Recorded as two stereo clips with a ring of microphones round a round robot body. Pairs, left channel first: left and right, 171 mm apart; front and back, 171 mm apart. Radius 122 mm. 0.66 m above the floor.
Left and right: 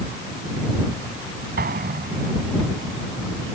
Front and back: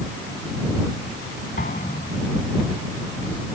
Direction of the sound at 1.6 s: 60° right.